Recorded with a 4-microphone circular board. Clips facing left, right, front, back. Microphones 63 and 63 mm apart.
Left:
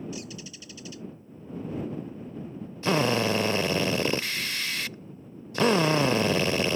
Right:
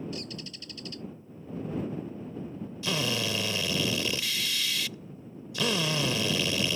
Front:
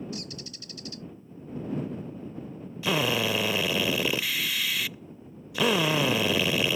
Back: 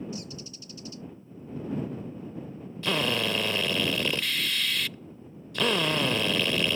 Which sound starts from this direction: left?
A drill, at 2.8 s.